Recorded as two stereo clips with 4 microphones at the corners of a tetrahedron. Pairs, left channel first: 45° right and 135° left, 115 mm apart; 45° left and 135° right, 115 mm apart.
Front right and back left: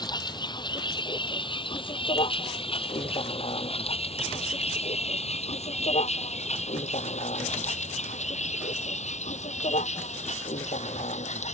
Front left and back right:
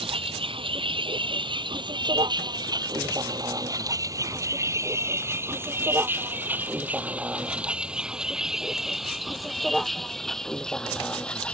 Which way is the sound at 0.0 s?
95° right.